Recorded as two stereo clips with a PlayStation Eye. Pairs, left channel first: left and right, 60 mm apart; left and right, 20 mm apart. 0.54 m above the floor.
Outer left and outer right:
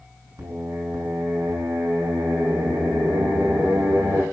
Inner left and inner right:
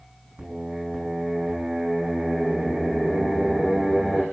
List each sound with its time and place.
0.4 s singing: 70° right (ahead or behind), 6.5 m